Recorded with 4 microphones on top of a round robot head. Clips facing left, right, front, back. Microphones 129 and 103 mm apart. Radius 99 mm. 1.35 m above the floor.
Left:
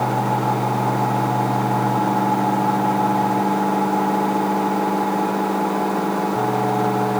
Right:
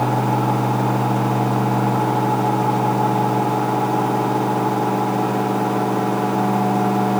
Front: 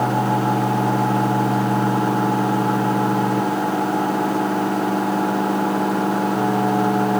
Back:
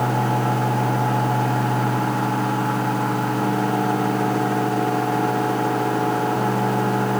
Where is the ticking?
No ticking in this recording.